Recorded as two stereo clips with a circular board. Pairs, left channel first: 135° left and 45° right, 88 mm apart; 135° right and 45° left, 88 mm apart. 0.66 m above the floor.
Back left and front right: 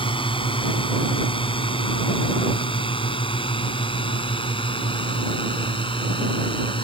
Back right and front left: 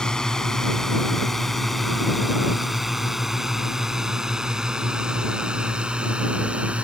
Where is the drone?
145° left; by 6.8 s 120° left.